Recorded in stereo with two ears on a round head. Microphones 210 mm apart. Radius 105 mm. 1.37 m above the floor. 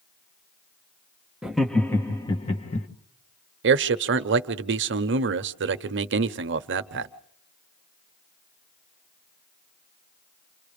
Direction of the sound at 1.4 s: 5° right (ahead or behind).